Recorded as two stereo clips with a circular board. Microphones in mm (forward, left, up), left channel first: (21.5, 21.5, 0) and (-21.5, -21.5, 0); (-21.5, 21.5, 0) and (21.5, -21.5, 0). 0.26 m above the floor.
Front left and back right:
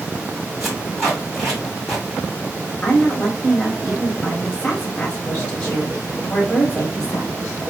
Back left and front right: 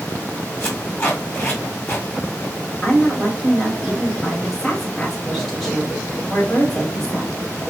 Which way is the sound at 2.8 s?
50° left.